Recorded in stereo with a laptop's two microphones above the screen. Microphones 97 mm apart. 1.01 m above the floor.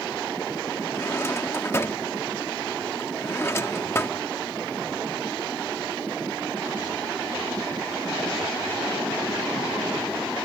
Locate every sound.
0.9 s a drawer: 25° left (ahead or behind)